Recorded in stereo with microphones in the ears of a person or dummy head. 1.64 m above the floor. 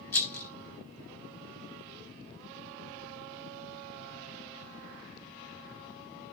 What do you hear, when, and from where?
0.1 s a rattle: 10° left (ahead or behind), 0.6 m